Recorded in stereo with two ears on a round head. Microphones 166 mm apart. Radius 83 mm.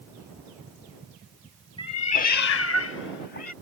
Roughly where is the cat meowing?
Left.